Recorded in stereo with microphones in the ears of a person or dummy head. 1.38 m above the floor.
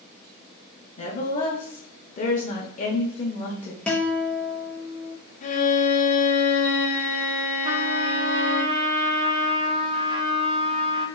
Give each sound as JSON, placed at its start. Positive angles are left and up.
{"t": 1.0, "sound": "a woman speaking", "side_deg": 35, "distance_m": 0.6}
{"t": 3.9, "sound": "a guitar", "side_deg": 0, "distance_m": 0.6}
{"t": 5.4, "sound": "a violin", "side_deg": 30, "distance_m": 0.5}
{"t": 7.6, "sound": "a trumpet", "side_deg": -25, "distance_m": 0.5}